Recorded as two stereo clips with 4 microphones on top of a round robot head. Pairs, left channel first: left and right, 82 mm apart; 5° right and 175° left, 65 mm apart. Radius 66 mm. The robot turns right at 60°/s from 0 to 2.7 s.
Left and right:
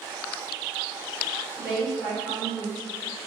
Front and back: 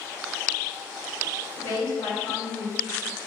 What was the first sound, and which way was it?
A woman speaking, 20° right.